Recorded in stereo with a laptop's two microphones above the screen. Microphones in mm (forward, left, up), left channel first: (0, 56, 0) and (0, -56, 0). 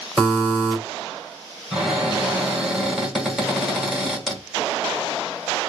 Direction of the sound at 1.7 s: 5° right (ahead or behind).